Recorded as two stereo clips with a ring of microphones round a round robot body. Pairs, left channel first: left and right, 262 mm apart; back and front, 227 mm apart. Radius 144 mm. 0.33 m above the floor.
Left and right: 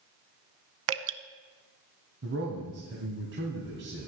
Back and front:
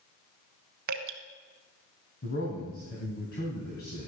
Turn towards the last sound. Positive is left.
turn(degrees=-130)